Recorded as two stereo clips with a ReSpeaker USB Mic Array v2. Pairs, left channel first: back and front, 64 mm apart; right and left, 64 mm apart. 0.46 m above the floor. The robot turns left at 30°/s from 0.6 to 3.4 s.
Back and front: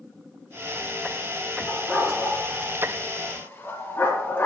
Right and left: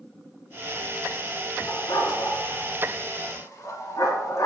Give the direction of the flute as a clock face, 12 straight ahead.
No flute in this recording.